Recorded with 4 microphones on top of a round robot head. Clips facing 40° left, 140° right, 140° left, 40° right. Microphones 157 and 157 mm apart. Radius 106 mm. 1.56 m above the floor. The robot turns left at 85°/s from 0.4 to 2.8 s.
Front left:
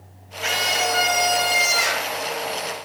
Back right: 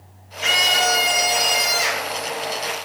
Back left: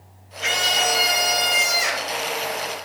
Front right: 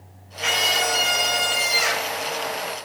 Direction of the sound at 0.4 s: 160° right.